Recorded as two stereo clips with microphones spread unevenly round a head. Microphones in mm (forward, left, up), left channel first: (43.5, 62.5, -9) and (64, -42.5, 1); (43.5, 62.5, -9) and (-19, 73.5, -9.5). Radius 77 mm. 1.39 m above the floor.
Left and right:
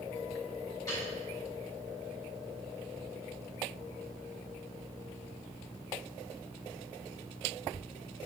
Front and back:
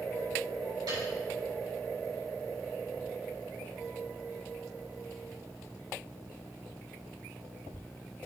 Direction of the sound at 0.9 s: 170° left.